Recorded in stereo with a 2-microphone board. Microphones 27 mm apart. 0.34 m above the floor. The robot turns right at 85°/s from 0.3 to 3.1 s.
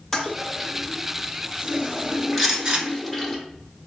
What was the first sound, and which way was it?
A toilet flushing, 20° left (ahead or behind).